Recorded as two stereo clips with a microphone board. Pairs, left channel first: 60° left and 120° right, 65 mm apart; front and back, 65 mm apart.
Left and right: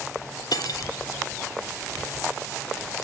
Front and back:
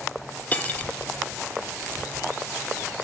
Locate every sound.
0.5 s cutlery clinking: 65° left, 1.0 m